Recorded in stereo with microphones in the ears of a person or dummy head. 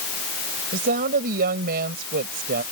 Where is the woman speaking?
50° right (ahead or behind).